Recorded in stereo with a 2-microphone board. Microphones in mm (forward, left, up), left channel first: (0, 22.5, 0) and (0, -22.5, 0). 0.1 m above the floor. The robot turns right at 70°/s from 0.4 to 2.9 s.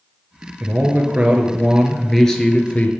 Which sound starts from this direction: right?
A man speaking, at 0.6 s.